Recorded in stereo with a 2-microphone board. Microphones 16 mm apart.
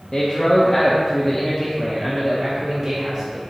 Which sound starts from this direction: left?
A man speaking, at 0.1 s.